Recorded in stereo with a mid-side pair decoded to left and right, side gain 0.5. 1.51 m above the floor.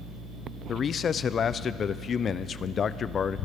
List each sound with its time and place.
0.7 s a man speaking: 50° left, 0.5 m